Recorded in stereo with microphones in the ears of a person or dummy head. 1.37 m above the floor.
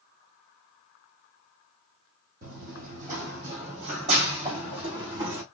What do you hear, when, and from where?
2.4 s running footsteps: 50° right (ahead or behind), 2.5 m; by 5.4 s 30° right (ahead or behind), 4 m